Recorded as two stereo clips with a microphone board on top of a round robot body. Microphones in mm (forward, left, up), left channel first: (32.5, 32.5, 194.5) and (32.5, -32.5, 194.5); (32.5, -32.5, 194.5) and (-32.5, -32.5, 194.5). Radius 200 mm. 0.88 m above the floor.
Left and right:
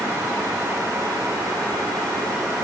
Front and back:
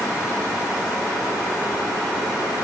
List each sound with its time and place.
Only background noise.